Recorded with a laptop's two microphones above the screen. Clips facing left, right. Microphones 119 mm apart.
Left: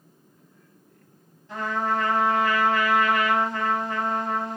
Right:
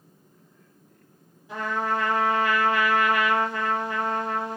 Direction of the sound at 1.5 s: 10° right (ahead or behind).